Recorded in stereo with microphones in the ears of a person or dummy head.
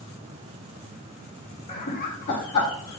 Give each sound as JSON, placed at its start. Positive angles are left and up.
{"t": 1.7, "sound": "laughter", "side_deg": 40, "distance_m": 0.7}